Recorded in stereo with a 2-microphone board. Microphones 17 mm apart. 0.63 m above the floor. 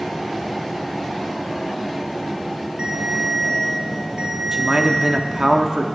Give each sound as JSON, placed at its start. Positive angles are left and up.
{"t": 2.8, "sound": "a ringtone", "side_deg": -70, "distance_m": 4.0}
{"t": 4.5, "sound": "a man speaking", "side_deg": -50, "distance_m": 0.8}